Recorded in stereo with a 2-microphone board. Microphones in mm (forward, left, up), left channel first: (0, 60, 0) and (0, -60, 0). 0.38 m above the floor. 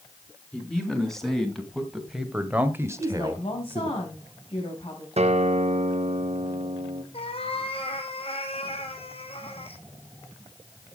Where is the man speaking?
5° left (ahead or behind), 4 m; by 4.0 s 35° right (ahead or behind), 1.5 m.